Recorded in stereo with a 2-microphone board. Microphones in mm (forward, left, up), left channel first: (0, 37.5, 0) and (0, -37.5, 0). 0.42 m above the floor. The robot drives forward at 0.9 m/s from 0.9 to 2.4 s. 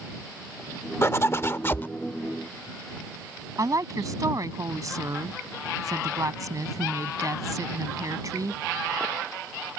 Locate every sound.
1.0 s a zipper: 35° left (ahead or behind); by 1.9 s 30° left (ahead or behind)
3.6 s a woman speaking: 50° right (ahead or behind)